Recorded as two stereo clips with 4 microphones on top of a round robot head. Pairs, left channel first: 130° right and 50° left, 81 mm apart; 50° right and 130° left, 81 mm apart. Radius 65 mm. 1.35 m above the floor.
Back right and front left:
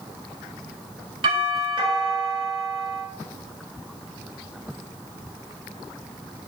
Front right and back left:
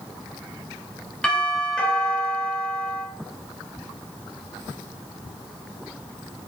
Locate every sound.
1.2 s a doorbell: 30° left, 4 m